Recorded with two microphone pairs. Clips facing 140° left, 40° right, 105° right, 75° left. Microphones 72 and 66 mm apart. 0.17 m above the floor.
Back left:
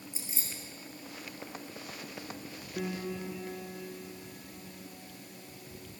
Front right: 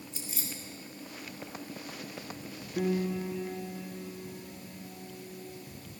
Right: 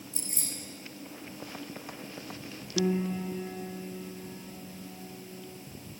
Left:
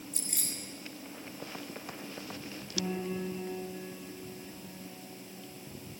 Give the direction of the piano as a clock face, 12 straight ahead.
4 o'clock.